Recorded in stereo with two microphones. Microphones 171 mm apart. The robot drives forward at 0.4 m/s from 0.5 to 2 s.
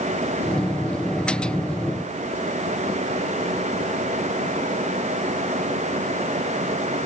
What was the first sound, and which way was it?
Only background noise.